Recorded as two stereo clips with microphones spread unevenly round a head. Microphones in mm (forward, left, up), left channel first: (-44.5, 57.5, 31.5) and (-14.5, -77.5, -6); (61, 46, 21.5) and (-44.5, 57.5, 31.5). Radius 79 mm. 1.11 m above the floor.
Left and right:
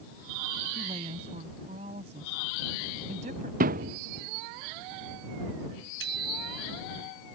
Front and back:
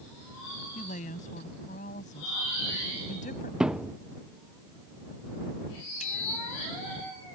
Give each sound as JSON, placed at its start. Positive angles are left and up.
{"t": 0.8, "sound": "a woman speaking", "azimuth_deg": -20}
{"t": 3.6, "sound": "a thud", "azimuth_deg": -100}
{"t": 6.0, "sound": "a bicycle bell", "azimuth_deg": -55}